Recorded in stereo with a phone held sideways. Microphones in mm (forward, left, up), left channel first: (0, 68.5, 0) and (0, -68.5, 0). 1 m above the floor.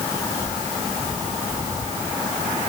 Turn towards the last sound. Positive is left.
No sound to turn to.